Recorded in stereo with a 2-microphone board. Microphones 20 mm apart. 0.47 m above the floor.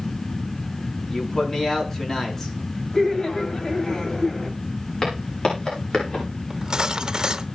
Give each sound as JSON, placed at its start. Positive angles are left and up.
{"t": 1.1, "sound": "a man speaking", "side_deg": 25, "distance_m": 5.0}
{"t": 2.9, "sound": "laughter", "side_deg": 30, "distance_m": 2.5}
{"t": 5.0, "sound": "footsteps", "side_deg": 45, "distance_m": 8.0}
{"t": 6.5, "sound": "cutlery clinking", "side_deg": -40, "distance_m": 0.8}